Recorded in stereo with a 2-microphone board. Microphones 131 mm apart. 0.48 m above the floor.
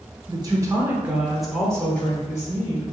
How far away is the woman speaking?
About 1.1 m.